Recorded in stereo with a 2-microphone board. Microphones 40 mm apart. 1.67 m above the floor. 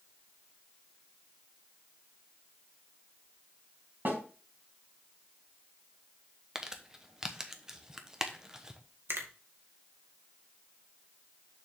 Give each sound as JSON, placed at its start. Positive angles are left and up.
{"t": 4.0, "sound": "a snare drum", "side_deg": -55, "distance_m": 4.0}
{"t": 6.5, "sound": "crumpling", "side_deg": -15, "distance_m": 1.1}
{"t": 9.1, "sound": "a finger snap", "side_deg": -70, "distance_m": 1.8}